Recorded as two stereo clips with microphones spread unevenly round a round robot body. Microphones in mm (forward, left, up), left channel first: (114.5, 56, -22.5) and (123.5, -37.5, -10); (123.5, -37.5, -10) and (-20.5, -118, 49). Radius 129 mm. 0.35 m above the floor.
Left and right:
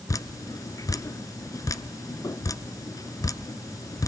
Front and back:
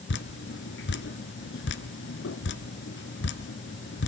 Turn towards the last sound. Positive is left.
turn(degrees=40)